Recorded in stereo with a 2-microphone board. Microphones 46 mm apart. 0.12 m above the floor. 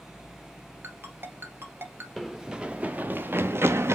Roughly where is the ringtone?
Right.